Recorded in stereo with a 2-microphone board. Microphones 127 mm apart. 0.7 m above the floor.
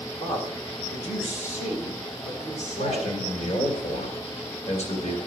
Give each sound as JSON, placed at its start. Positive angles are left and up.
{"t": 0.2, "sound": "a man speaking", "side_deg": 55, "distance_m": 3.5}
{"t": 2.8, "sound": "a man speaking", "side_deg": 60, "distance_m": 3.0}